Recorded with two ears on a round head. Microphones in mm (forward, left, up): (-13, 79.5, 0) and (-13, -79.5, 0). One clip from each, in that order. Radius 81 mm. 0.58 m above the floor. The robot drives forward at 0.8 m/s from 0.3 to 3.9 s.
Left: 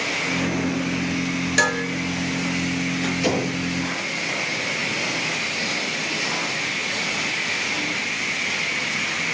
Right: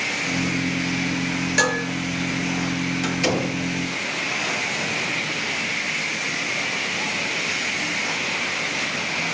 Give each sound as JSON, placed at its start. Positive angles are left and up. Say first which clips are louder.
{"t": 1.6, "sound": "dishes clattering", "louder": "left 1 dB", "side_deg": 5, "distance_m": 8.0}
{"t": 3.0, "sound": "a door slam", "louder": "right 1 dB", "side_deg": -30, "distance_m": 9.5}